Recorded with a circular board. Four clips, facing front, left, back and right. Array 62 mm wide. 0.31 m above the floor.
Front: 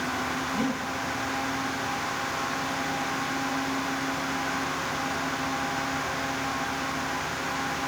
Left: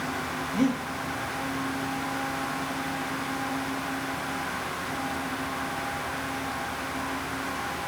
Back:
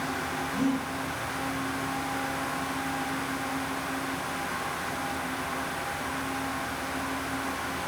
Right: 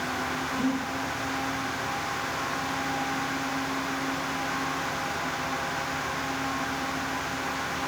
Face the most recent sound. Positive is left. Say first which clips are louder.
# left 4 dB, back 3 dB
turn(degrees=70)